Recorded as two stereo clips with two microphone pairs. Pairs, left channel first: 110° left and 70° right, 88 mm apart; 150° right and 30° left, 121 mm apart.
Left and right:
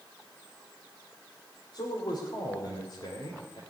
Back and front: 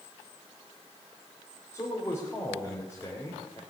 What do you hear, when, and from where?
1.7 s a man speaking: 145° left, 3 m